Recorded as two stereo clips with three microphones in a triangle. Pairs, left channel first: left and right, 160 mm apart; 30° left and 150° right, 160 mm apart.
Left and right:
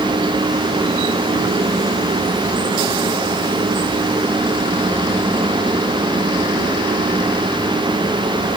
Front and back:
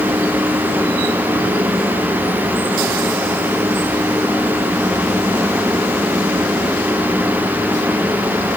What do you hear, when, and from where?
Only background noise.